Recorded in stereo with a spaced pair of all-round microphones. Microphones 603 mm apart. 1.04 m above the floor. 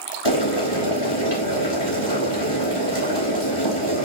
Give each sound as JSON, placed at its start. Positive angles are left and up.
{"t": 0.2, "sound": "boiling", "side_deg": 45, "distance_m": 4.0}